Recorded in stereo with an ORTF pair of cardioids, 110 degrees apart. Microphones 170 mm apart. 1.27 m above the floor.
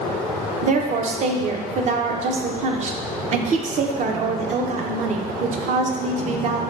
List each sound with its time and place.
0.6 s a woman speaking: 45° right, 0.6 m